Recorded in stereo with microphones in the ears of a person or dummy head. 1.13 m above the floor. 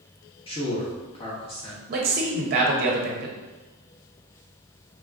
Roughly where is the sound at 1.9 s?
Right.